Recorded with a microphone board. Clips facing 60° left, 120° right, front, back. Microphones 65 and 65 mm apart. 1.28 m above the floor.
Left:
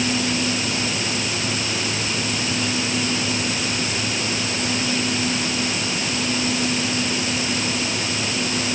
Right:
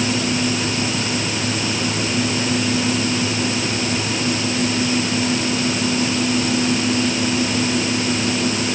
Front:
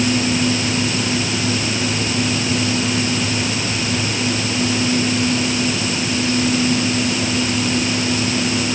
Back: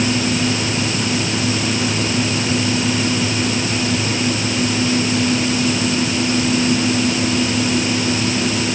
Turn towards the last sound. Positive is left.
No sound to turn to.